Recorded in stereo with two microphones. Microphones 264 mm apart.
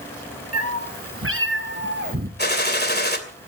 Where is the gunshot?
40° left (ahead or behind), 2.5 m.